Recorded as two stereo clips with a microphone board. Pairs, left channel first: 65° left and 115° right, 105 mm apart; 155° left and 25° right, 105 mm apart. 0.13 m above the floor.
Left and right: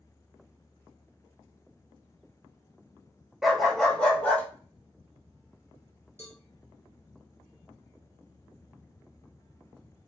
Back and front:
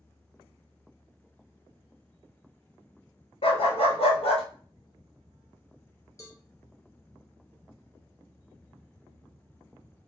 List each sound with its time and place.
3.4 s a dog barking: 160° left, 0.7 m; by 4.4 s 145° left, 1.2 m
6.2 s a cowbell: 160° right, 1.1 m